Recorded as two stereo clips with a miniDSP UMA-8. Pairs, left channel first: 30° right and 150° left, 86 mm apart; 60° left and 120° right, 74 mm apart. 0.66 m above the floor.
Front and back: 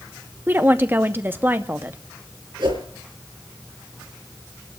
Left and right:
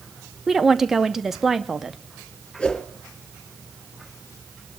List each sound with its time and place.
0.5 s a woman speaking: 160° left, 0.7 m
2.6 s a whoosh: 140° left, 4 m